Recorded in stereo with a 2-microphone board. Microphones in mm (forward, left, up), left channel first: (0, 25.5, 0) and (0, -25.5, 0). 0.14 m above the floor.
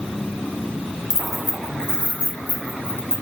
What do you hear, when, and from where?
1.1 s keys jangling: 10° left (ahead or behind), 0.8 m; by 3.2 s 45° right (ahead or behind), 1.4 m